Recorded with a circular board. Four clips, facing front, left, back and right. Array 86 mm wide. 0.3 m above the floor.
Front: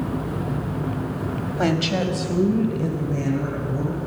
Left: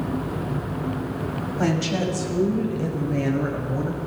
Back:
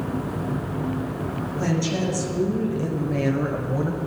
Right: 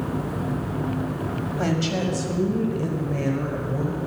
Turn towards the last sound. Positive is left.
turn(degrees=180)